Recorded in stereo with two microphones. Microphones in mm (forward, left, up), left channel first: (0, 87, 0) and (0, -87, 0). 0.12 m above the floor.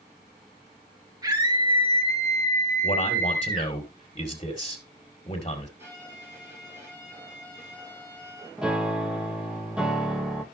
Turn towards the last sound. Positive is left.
turn(degrees=-5)  # may be behind; listen again after turning